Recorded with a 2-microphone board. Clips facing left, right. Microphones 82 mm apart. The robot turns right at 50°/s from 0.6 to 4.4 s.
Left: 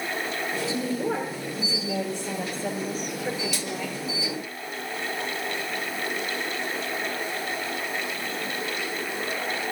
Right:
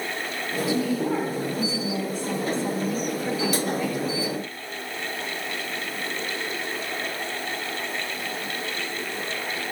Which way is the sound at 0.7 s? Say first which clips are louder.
Right 5 dB; 30° left.